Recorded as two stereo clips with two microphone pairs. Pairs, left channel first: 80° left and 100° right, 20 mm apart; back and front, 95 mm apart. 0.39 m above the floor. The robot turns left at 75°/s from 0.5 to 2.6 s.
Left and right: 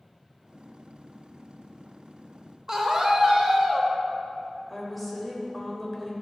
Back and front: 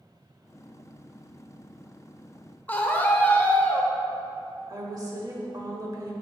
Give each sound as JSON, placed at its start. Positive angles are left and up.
{"t": 2.7, "sound": "a scream", "azimuth_deg": -125, "distance_m": 1.2}
{"t": 4.7, "sound": "a woman speaking", "azimuth_deg": -10, "distance_m": 1.5}